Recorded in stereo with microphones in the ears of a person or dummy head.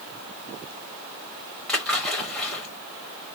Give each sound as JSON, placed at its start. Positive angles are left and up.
{"t": 1.7, "sound": "a splash", "side_deg": 10, "distance_m": 2.0}